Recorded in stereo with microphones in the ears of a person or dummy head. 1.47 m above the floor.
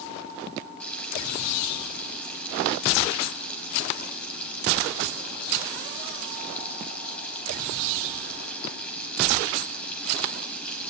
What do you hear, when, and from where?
0.8 s frying: 5° left (ahead or behind), 3.5 m